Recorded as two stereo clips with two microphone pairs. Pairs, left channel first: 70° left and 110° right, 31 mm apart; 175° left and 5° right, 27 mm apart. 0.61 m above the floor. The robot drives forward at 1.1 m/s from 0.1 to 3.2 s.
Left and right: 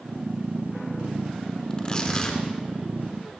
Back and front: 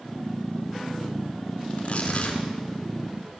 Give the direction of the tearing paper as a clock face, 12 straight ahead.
8 o'clock.